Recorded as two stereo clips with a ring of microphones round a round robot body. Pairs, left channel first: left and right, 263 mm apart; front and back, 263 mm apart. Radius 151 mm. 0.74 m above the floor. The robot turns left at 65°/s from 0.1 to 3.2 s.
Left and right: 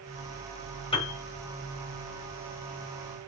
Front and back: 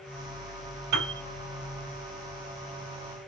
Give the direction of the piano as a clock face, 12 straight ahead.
7 o'clock.